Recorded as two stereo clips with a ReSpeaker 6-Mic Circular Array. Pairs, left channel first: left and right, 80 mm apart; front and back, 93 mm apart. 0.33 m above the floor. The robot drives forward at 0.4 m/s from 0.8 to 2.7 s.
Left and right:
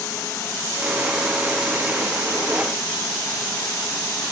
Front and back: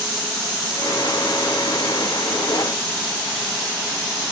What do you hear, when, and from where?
Only background noise.